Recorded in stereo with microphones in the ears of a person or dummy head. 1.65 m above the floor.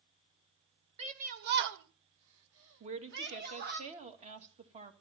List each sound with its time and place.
1.0 s a shout: 35° right (ahead or behind), 1.2 m; by 3.8 s 45° right (ahead or behind), 2 m
2.8 s a woman speaking: 35° right (ahead or behind), 1.9 m